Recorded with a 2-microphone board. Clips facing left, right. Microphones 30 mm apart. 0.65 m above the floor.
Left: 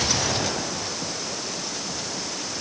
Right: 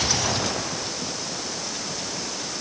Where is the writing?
No writing in this recording.